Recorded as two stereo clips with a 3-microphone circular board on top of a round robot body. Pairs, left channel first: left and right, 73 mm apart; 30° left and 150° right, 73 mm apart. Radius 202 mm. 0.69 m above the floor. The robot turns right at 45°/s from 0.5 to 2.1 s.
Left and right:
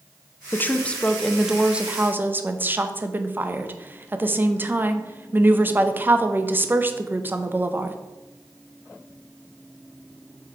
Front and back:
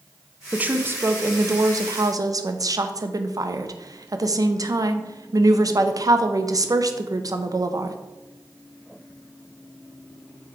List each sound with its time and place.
0.5 s a woman speaking: 145° left, 0.9 m; by 8.0 s 145° right, 0.9 m